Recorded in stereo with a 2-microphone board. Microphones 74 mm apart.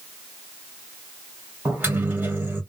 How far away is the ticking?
No ticking in this recording.